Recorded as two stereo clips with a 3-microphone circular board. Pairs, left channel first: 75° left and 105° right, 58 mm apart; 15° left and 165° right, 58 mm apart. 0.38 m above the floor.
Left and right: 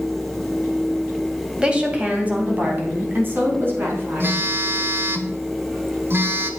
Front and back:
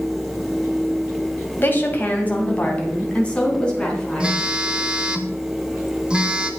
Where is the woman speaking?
35° right, 2 m; by 4.4 s 60° right, 4.5 m.